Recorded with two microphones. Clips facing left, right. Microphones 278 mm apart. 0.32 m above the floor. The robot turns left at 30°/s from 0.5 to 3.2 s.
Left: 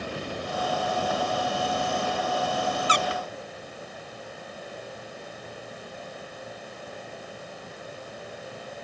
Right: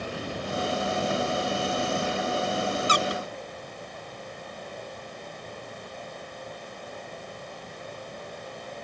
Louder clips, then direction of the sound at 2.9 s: Right 1 dB; 50° right (ahead or behind).